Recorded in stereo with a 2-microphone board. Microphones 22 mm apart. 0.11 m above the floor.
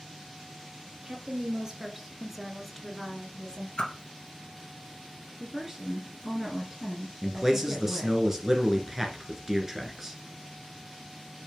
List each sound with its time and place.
1.0 s a woman speaking: 35° right (ahead or behind), 2 m; by 3.7 s 40° left (ahead or behind), 1.6 m
3.8 s a whoosh: 45° left (ahead or behind), 1.7 m
5.4 s a woman speaking: 15° right (ahead or behind), 1.5 m
7.2 s a man speaking: 20° right (ahead or behind), 1.8 m